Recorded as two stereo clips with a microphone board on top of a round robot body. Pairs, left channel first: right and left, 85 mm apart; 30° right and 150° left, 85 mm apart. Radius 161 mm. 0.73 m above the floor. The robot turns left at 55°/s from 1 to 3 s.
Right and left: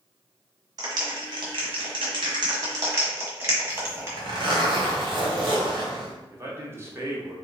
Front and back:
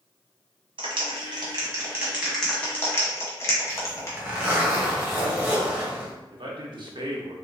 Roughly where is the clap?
Behind left.